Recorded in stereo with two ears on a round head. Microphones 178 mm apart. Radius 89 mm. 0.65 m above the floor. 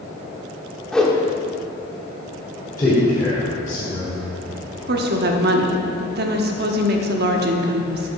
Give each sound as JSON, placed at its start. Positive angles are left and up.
{"t": 0.9, "sound": "a whoosh", "side_deg": 5, "distance_m": 1.1}
{"t": 2.8, "sound": "a man speaking", "side_deg": 15, "distance_m": 2.0}
{"t": 4.9, "sound": "a woman speaking", "side_deg": -55, "distance_m": 1.0}